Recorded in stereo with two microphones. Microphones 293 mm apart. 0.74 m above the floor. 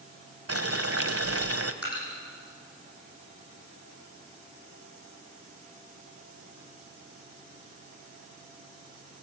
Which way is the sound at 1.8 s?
60° left (ahead or behind).